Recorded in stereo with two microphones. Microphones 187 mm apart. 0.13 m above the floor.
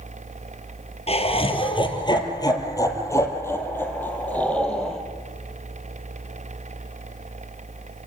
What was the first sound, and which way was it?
Laughter, 35° left (ahead or behind).